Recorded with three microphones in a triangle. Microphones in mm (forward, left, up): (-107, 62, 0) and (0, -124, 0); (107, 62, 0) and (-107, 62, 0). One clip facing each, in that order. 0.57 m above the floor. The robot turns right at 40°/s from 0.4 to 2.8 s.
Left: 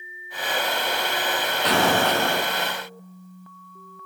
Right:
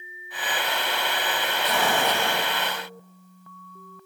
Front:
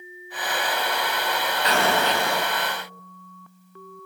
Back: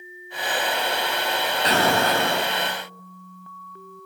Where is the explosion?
125° left, 4 m; by 2.5 s 160° left, 4 m.